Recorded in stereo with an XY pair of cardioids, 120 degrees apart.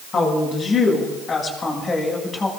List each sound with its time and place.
0.1 s a woman speaking: 45° left, 6.5 m; by 2.5 s 25° left, 6 m